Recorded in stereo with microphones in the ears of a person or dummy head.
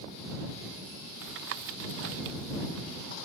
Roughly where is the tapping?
Right.